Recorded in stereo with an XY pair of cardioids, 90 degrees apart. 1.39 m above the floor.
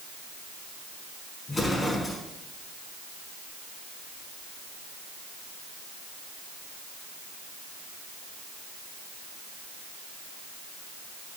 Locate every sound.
1.5 s an explosion: 30° left, 4.5 m